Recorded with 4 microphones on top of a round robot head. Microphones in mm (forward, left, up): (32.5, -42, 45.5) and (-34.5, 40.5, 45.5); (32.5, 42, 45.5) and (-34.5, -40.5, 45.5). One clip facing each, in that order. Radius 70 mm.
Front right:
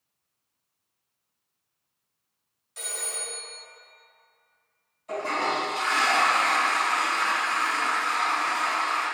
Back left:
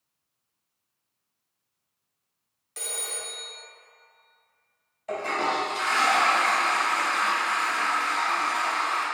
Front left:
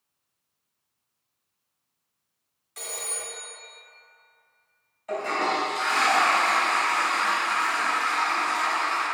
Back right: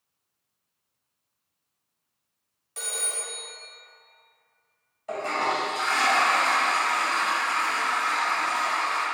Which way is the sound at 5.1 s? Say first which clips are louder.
Even, front left 1 dB; 165° left.